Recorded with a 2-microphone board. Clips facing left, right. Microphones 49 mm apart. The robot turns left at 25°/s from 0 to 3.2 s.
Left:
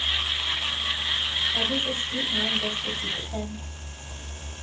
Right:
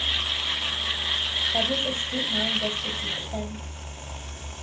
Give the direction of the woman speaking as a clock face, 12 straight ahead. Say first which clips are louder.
Right 1 dB; 4 o'clock.